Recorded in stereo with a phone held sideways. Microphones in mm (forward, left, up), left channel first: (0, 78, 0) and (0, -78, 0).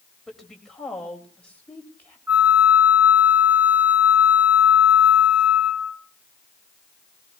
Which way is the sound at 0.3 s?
Centre (ahead or behind).